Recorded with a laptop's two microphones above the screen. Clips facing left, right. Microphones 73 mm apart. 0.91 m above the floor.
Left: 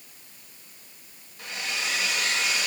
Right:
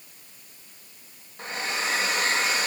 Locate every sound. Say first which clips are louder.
1.4 s a hair dryer: right 3 dB; 35° right (ahead or behind), 1.6 m